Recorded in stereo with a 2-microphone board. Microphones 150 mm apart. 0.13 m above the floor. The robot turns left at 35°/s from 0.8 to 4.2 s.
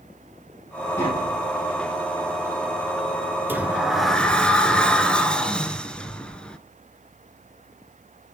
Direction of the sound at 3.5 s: 15° right (ahead or behind).